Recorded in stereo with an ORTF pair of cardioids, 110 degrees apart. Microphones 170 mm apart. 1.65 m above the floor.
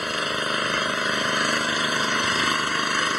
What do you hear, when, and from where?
0.0 s an engine running: straight ahead